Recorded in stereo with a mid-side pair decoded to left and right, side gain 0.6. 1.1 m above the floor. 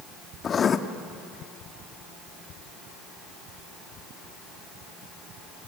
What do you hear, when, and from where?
0.4 s writing: 35° left, 1.3 m